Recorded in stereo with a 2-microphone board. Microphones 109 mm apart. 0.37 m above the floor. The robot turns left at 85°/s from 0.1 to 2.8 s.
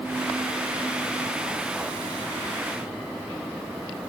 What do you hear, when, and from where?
Only background noise.